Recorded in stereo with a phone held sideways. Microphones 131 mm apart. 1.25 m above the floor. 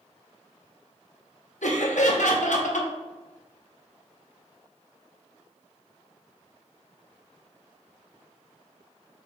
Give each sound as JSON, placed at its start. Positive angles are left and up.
{"t": 1.6, "sound": "laughter", "side_deg": 80, "distance_m": 0.8}